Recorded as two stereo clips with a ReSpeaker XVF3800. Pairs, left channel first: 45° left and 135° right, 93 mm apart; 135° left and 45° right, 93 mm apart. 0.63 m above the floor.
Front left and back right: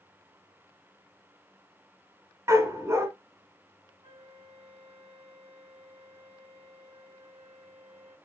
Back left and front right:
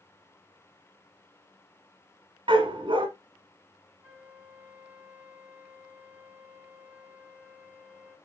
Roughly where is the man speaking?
I don't hear a man speaking.